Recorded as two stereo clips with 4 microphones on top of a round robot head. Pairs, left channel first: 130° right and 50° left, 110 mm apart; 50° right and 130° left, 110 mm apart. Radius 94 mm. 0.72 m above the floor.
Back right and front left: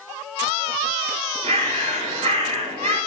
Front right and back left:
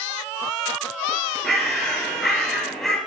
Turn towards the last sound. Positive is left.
turn(degrees=35)